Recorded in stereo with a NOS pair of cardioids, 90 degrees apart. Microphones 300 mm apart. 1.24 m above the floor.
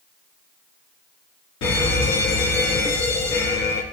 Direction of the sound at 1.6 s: 65° left.